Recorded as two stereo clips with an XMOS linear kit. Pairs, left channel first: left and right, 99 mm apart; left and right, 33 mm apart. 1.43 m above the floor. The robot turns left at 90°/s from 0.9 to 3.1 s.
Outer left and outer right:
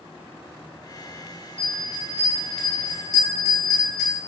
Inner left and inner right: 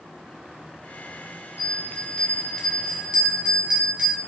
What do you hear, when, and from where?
1.6 s a bell: 95° left, 0.7 m; by 4.2 s 40° right, 0.7 m